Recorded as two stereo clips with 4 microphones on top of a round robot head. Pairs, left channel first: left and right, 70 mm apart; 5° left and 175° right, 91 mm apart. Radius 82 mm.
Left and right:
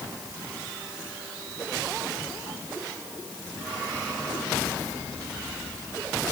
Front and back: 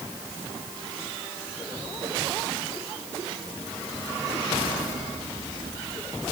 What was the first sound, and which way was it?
Only background noise.